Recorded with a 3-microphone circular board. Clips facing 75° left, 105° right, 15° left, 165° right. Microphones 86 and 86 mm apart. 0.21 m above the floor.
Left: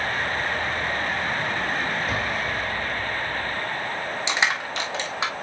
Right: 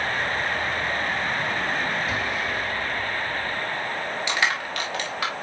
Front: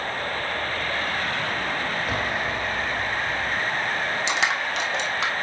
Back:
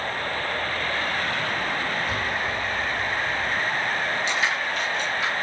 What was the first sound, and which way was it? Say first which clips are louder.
An explosion: even, front 1 dB; 25° left.